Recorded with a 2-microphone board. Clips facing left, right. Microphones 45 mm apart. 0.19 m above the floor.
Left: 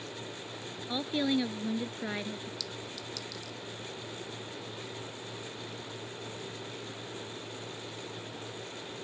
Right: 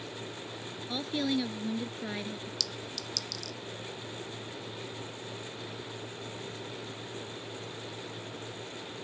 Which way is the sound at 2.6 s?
70° right (ahead or behind).